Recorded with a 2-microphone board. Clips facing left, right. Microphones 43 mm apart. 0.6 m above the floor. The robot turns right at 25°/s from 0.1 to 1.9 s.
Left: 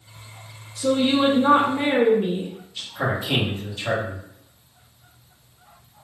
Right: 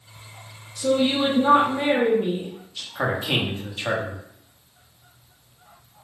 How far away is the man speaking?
About 1.0 m.